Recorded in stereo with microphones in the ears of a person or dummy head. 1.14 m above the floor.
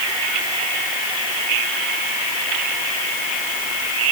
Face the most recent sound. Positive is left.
No sound to turn to.